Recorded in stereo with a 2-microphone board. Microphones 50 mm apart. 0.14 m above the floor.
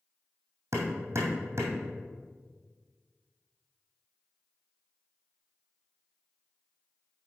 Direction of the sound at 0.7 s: 60° right (ahead or behind).